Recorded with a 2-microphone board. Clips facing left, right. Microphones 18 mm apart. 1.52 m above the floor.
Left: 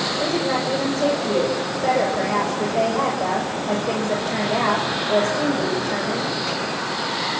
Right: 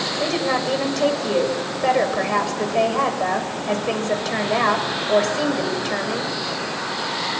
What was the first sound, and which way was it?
A woman speaking, 60° right (ahead or behind).